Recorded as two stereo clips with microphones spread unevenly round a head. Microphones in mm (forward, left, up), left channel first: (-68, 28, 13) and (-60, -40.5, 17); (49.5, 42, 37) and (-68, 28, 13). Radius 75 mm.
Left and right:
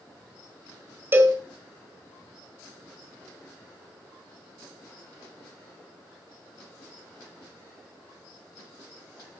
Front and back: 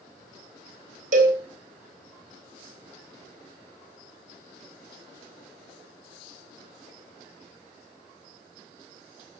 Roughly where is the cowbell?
Behind right.